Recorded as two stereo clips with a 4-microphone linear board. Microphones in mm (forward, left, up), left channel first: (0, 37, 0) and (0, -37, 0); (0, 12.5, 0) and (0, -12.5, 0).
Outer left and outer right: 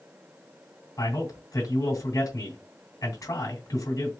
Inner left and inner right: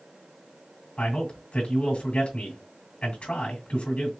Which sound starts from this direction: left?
A man speaking, at 1.0 s.